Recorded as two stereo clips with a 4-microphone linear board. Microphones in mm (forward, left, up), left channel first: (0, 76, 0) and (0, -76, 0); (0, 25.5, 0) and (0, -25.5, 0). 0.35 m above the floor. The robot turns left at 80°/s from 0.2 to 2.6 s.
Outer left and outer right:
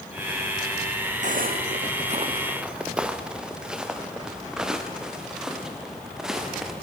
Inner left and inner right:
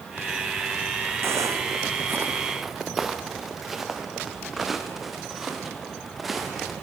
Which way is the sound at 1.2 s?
55° right (ahead or behind).